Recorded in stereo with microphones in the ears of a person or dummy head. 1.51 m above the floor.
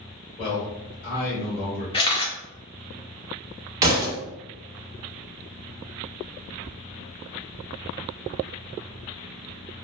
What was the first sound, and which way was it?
A man speaking, 30° left (ahead or behind).